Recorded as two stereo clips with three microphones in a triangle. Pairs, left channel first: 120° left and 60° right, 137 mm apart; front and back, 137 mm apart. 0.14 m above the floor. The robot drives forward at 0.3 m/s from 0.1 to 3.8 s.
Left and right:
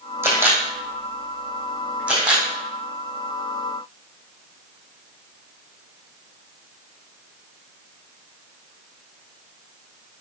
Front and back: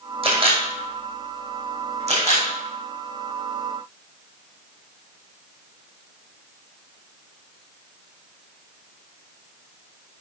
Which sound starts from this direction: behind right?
A camera shutter, at 0.2 s.